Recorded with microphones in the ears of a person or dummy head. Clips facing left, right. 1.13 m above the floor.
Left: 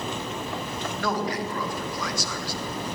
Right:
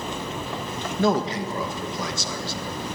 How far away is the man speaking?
About 1.5 m.